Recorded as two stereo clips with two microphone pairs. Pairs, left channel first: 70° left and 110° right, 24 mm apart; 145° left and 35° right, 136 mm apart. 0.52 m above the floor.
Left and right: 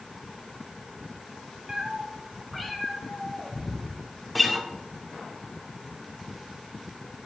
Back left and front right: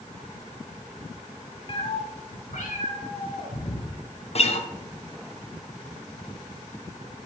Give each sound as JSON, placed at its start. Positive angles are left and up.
{"t": 1.7, "sound": "a cat meowing", "azimuth_deg": -165, "distance_m": 1.0}
{"t": 4.3, "sound": "a guitar", "azimuth_deg": 160, "distance_m": 0.7}